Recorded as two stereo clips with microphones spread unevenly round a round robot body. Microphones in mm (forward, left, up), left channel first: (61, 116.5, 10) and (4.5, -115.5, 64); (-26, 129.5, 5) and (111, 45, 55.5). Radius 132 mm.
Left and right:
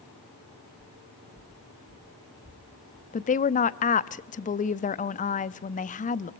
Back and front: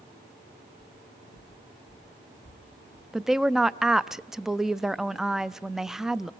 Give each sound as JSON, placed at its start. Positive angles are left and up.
{"t": 0.8, "sound": "footsteps", "azimuth_deg": -165, "distance_m": 5.0}
{"t": 3.1, "sound": "a woman speaking", "azimuth_deg": 75, "distance_m": 0.7}